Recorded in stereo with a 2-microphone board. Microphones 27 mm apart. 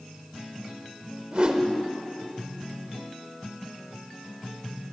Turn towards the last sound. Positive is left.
turn(degrees=-45)  # may be behind; listen again after turning